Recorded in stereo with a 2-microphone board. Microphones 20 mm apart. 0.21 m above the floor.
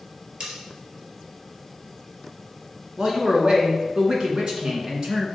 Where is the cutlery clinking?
50° right (ahead or behind), 2.5 m.